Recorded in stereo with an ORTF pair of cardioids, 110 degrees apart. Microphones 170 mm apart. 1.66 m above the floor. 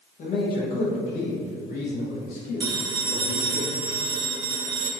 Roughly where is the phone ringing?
Ahead right.